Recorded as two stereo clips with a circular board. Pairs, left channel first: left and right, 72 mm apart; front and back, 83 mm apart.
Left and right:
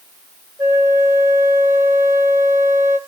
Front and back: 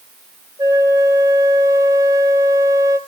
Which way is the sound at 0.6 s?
140° right.